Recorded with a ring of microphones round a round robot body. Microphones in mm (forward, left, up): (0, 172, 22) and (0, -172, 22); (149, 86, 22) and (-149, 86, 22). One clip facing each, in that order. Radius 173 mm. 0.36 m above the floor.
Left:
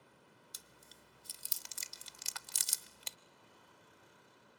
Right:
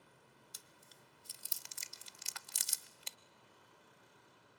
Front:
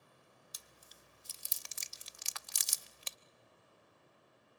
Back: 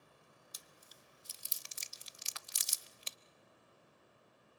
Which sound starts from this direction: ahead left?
Chewing, at 0.5 s.